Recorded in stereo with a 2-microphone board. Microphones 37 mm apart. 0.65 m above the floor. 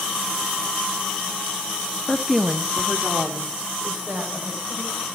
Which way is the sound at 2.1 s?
25° left (ahead or behind).